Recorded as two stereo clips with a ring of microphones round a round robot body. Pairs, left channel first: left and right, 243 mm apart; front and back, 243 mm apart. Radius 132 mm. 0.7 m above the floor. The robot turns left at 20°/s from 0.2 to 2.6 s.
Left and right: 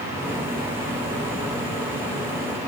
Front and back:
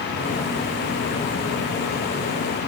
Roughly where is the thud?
I don't hear a thud.